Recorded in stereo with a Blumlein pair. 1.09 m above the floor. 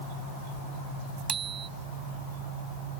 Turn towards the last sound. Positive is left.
turn(degrees=-25)